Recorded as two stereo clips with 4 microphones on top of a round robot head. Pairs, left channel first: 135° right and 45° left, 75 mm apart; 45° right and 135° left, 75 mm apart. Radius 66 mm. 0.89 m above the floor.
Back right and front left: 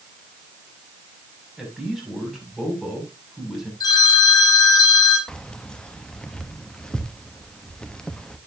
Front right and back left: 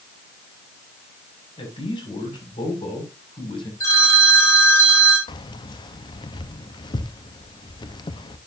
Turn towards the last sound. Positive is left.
turn(degrees=-60)